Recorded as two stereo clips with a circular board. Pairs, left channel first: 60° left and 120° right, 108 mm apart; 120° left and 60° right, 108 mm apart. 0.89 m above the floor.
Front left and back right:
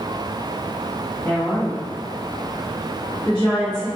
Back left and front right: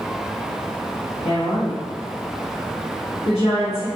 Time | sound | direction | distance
1.2 | a woman speaking | 130° left | 1.4 m